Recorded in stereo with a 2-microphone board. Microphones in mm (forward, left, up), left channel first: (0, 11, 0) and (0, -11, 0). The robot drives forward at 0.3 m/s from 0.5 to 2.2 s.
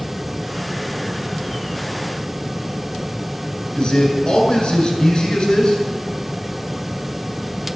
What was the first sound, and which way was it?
A man speaking, 45° left (ahead or behind).